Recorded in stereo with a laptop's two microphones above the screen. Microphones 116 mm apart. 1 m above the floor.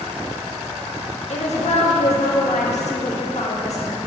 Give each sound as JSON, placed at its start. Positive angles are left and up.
{"t": 1.3, "sound": "a woman speaking", "side_deg": 75, "distance_m": 1.2}